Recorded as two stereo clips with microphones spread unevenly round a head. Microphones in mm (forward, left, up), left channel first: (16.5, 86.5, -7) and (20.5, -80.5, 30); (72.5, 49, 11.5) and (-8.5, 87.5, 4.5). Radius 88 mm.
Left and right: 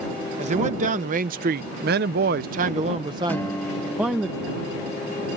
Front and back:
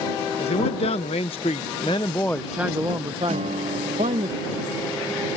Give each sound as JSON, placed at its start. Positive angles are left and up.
{"t": 0.4, "sound": "a man speaking", "azimuth_deg": -45}
{"t": 3.3, "sound": "a guitar", "azimuth_deg": 175}